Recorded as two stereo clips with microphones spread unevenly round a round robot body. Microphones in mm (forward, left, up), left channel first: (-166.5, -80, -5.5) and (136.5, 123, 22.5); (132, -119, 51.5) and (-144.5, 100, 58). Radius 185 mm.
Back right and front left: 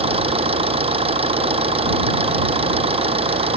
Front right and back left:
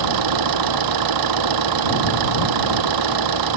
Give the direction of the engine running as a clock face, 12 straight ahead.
8 o'clock.